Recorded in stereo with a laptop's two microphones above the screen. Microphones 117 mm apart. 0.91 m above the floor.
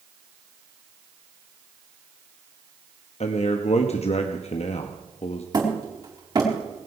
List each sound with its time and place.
3.2 s a man speaking: 60° left (ahead or behind), 0.9 m
5.5 s hammering: 35° right (ahead or behind), 4.5 m